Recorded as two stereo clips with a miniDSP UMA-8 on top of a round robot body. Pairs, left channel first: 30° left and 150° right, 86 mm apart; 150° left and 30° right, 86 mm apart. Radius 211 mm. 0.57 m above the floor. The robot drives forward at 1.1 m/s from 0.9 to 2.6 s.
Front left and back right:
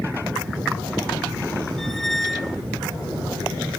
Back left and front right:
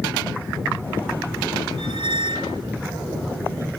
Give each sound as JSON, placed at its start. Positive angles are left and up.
{"t": 1.8, "sound": "a squeak", "azimuth_deg": -55}